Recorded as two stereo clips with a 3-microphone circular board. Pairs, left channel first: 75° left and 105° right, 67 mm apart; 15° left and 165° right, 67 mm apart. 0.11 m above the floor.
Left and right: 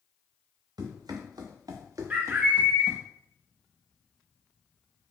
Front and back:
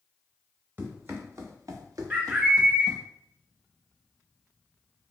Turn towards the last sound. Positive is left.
turn(degrees=-130)